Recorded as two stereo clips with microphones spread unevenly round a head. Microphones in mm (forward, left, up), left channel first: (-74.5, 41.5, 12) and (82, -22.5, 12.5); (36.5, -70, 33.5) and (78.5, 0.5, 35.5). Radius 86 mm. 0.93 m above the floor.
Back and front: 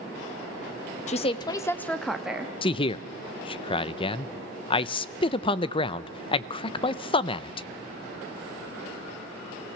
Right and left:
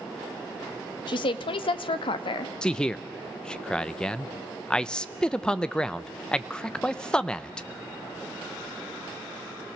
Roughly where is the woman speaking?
Behind right.